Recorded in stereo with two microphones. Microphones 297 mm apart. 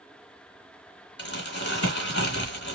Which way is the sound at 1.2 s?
40° left (ahead or behind).